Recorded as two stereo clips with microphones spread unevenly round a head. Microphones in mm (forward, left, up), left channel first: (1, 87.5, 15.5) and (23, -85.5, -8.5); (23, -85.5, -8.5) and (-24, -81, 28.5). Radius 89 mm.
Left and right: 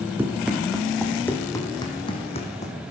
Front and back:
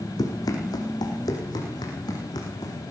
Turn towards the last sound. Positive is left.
turn(degrees=55)